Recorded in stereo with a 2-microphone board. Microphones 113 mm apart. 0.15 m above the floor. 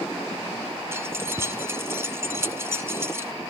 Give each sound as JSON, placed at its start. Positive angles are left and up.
{"t": 0.9, "sound": "keys jangling", "side_deg": -25, "distance_m": 0.9}